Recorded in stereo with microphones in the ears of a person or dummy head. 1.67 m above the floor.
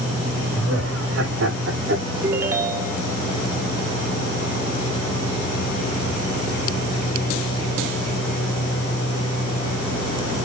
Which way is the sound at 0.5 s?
85° right.